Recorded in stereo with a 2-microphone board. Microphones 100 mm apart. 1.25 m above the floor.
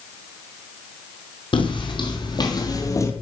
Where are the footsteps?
60° left (ahead or behind), 2 m; by 3.1 s 30° left (ahead or behind), 1.4 m.